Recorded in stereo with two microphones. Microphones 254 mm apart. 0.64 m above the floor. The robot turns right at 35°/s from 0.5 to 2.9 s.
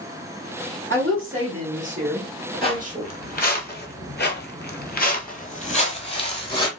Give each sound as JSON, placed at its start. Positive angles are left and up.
{"t": 0.9, "sound": "a woman speaking", "azimuth_deg": -110, "distance_m": 1.7}
{"t": 2.6, "sound": "footsteps", "side_deg": 20, "distance_m": 1.2}